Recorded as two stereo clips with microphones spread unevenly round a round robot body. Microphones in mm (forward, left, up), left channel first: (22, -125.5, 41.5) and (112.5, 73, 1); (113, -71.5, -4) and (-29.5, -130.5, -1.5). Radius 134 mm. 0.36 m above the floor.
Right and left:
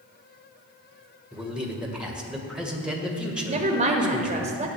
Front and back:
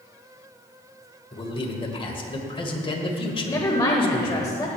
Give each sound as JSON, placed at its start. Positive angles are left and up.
{"t": 1.3, "sound": "a man speaking", "azimuth_deg": -5, "distance_m": 1.7}
{"t": 3.5, "sound": "a woman speaking", "azimuth_deg": 80, "distance_m": 1.0}